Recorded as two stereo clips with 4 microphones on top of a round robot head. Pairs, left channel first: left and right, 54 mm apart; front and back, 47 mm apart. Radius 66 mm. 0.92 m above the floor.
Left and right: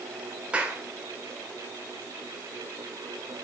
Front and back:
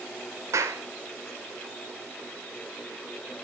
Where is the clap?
160° right, 3.5 m.